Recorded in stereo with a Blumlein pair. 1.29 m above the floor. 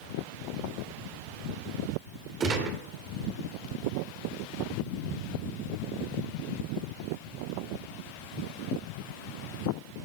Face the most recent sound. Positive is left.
turn(degrees=-30)